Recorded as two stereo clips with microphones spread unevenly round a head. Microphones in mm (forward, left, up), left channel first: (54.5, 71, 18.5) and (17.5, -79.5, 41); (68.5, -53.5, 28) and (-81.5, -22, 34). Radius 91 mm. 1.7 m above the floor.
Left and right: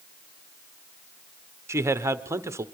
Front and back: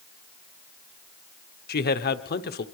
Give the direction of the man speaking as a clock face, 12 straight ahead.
1 o'clock.